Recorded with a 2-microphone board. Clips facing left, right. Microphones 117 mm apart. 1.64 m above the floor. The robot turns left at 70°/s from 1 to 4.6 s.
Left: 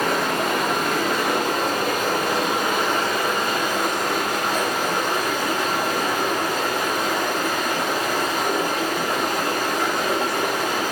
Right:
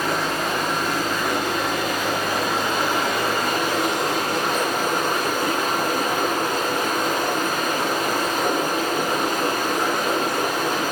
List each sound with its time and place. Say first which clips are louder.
0.0 s running water: left 2 dB; 125° left, 4.5 m; by 10.9 s 125° right, 4.5 m